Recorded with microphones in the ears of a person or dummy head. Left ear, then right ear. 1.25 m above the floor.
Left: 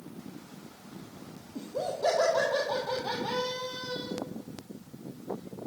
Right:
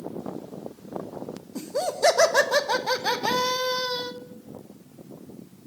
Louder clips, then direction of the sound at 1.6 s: Right 6 dB; 65° right (ahead or behind).